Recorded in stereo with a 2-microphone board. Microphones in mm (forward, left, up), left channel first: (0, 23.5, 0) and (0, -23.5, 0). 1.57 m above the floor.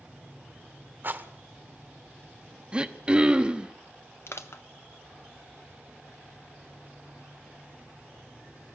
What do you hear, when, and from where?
1.0 s a rattle: 45° right (ahead or behind), 1.2 m
2.7 s throat clearing: 20° right (ahead or behind), 0.9 m
4.3 s crushing: 65° left (ahead or behind), 1.2 m